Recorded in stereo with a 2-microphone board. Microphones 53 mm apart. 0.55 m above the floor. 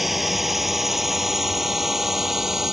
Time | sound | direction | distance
0.0 | a drone | centre (ahead or behind) | ?